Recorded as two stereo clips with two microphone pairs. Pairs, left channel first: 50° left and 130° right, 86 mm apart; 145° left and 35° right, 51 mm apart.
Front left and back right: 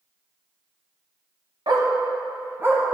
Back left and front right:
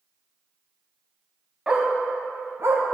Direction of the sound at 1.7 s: 105° right.